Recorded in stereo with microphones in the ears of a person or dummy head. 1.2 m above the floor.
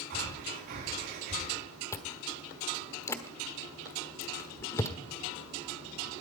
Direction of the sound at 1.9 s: 20° left (ahead or behind).